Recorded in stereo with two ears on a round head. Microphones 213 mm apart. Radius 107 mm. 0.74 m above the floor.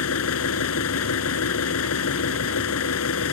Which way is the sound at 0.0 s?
65° left (ahead or behind).